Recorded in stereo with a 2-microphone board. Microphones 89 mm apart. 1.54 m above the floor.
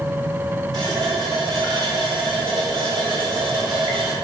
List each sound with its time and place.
0.7 s a running tap: 55° right (ahead or behind), 2 m